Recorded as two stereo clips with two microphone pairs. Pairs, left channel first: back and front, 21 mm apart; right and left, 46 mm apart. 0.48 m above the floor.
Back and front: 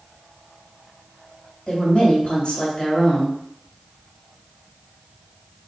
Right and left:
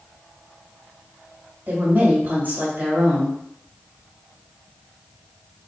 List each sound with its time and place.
1.7 s a woman speaking: 130° left, 2 m